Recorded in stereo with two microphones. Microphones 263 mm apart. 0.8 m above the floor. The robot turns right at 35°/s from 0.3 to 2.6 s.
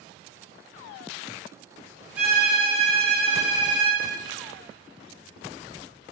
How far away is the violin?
About 1.5 m.